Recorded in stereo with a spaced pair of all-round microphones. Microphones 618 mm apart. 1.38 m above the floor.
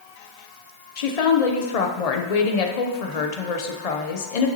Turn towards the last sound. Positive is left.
turn(degrees=75)  # may be behind; listen again after turning